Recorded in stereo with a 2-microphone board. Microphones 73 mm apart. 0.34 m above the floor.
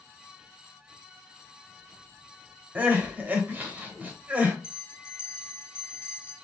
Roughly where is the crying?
Right.